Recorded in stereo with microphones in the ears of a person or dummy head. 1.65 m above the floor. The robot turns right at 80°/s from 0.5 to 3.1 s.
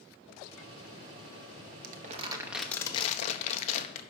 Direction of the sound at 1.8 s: 60° right.